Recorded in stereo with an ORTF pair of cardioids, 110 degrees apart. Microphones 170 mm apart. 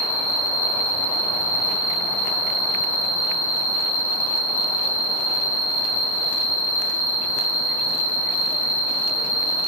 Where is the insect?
35° left, 1.3 m.